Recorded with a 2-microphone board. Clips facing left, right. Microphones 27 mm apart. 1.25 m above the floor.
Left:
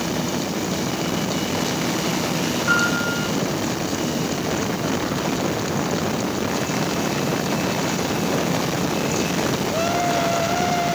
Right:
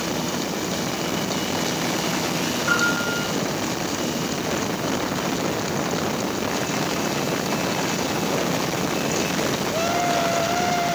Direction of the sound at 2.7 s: Centre (ahead or behind).